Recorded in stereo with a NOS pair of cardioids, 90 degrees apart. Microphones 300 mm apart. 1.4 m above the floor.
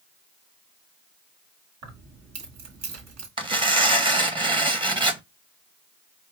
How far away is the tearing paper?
About 1.0 m.